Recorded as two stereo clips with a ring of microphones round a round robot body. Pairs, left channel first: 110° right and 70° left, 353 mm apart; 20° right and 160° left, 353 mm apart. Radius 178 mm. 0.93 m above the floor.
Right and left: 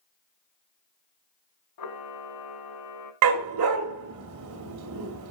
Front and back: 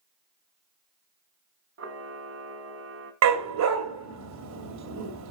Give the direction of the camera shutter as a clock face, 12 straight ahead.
5 o'clock.